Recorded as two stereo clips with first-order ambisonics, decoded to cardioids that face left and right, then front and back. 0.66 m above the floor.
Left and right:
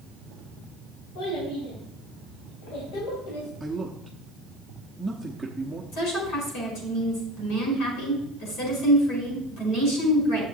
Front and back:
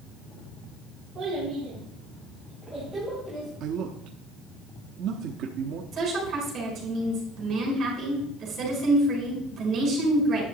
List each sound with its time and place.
1.1 s a child speaking: 110° left, 3.5 m; by 3.5 s 85° left, 2.0 m
3.6 s a man speaking: 175° right, 0.8 m
5.9 s a woman speaking: 125° left, 5 m